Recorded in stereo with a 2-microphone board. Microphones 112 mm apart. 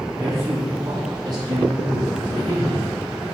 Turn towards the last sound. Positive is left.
turn(degrees=-60)  # may be behind; listen again after turning